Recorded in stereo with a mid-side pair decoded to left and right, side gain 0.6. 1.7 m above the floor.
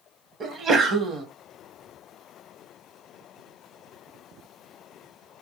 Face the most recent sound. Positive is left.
turn(degrees=-40)